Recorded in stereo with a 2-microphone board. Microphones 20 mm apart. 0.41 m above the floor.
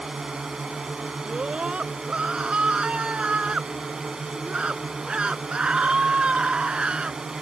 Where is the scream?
75° right (ahead or behind).